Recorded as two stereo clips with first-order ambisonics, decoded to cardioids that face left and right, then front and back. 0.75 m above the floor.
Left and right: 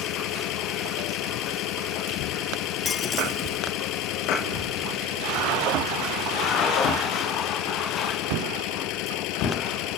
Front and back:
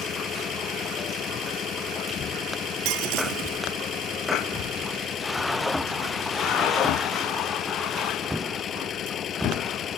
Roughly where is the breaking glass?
Behind.